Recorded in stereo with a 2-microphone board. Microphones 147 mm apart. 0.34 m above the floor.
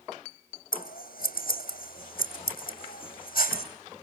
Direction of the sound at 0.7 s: 85° left.